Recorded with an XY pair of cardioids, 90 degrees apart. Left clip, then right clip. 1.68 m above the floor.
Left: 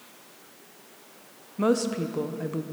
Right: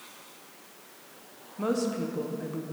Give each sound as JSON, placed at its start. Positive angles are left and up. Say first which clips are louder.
{"t": 1.6, "sound": "a woman speaking", "louder": "left 4 dB", "azimuth_deg": 50, "distance_m": 0.8}